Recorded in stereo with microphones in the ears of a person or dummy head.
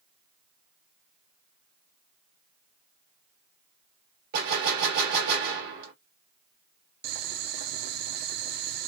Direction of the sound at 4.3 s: 55° right (ahead or behind).